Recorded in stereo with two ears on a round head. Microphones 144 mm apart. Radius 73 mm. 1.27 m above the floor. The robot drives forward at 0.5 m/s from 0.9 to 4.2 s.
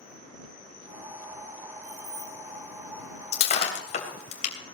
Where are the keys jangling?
60° right (ahead or behind), 6 m; by 2.3 s 55° right (ahead or behind), 6 m.